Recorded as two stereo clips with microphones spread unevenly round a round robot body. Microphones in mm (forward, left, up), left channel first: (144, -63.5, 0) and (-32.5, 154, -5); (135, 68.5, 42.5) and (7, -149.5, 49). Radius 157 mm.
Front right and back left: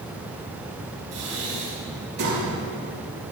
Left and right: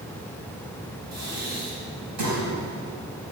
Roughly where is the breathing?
Behind.